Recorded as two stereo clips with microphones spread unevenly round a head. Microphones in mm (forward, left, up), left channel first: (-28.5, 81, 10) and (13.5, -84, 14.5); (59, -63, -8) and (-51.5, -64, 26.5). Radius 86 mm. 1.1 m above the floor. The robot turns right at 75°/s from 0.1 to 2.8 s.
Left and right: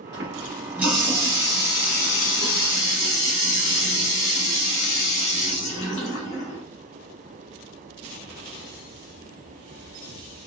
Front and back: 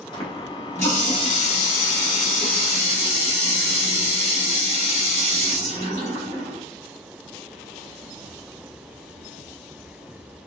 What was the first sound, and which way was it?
A running tap, 45° right.